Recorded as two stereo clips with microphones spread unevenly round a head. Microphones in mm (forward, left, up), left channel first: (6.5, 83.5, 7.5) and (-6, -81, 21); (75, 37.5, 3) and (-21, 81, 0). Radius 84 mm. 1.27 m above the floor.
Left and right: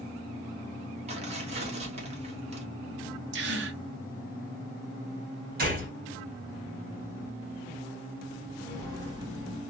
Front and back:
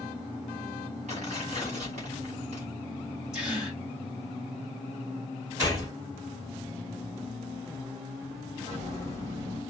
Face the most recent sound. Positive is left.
turn(degrees=-150)